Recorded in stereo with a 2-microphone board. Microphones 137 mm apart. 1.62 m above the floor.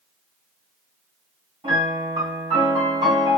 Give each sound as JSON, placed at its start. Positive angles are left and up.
{"t": 1.6, "sound": "a piano", "side_deg": -50, "distance_m": 1.7}